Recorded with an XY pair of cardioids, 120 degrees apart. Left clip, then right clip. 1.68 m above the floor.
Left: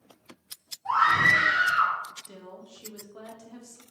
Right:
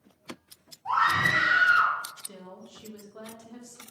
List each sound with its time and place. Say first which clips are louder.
0.8 s a scream: left 3 dB; 5° right, 0.9 m; by 1.9 s 10° right, 2 m
2.2 s a woman speaking: left 1 dB; 5° right, 0.8 m